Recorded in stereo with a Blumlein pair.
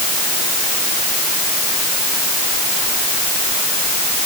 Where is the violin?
I don't hear a violin.